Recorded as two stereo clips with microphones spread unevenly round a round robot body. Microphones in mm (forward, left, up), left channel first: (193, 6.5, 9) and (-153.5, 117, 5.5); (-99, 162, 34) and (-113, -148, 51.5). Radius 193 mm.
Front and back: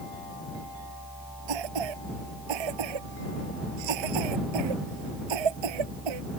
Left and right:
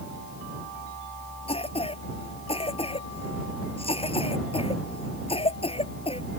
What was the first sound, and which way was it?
A cough, 160° left.